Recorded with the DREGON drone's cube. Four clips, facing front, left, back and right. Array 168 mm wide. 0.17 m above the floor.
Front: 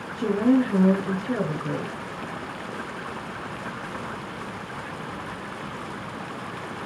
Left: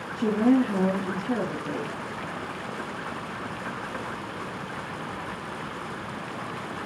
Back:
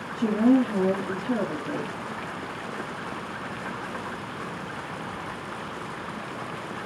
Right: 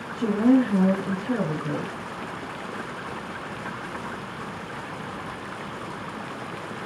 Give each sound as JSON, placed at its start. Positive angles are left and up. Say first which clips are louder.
{"t": 0.1, "sound": "a woman speaking", "louder": "right 2 dB, even", "azimuth_deg": -40, "distance_m": 2.0}